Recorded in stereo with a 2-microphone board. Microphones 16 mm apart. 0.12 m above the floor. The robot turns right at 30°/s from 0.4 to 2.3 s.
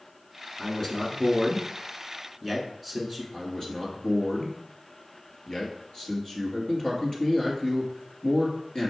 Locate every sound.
0.6 s a man speaking: 20° left (ahead or behind), 1.1 m; by 3.2 s 5° left (ahead or behind), 1.1 m
3.3 s a man speaking: 45° left (ahead or behind), 1.8 m